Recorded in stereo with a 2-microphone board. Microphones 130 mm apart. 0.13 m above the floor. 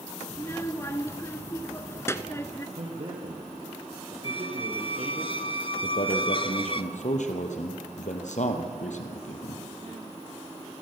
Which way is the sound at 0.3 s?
20° left (ahead or behind).